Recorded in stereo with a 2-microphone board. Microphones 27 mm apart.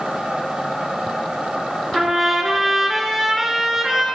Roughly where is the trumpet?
Centre.